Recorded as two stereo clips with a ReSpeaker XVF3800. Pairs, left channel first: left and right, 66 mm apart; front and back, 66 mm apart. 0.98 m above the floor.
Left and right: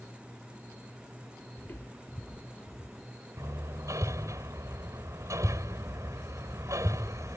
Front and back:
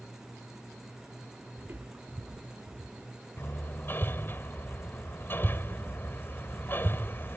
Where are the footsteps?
130° left; by 3.1 s 165° left.